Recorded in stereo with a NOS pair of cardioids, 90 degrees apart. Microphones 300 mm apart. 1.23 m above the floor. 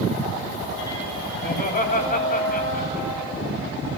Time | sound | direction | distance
1.4 | laughter | 30° left | 10 m